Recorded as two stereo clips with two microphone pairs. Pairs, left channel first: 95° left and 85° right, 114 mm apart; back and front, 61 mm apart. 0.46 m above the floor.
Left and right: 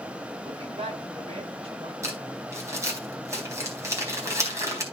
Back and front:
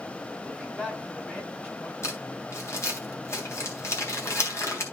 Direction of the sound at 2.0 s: 145° right.